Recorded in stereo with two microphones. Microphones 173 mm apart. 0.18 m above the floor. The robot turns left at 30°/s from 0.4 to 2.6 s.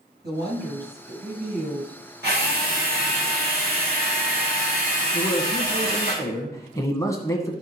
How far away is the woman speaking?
About 5 m.